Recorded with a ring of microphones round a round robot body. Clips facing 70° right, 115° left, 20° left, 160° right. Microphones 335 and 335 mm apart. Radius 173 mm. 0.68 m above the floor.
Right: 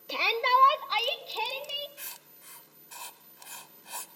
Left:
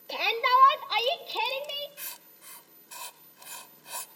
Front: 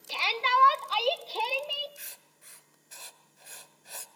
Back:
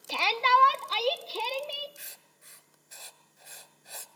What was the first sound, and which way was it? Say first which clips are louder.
A shout: even, back 3 dB; 145° right.